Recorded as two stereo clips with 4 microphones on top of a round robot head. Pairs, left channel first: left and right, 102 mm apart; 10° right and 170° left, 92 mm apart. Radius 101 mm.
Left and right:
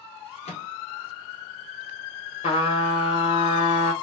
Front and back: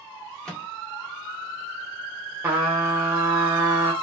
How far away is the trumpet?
About 1.4 m.